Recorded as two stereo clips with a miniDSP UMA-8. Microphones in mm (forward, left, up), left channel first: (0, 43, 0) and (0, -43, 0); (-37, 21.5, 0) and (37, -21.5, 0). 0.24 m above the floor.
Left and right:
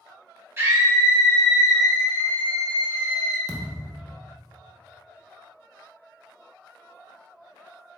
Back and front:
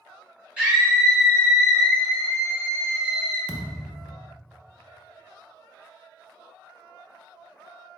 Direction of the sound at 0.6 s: 90° right.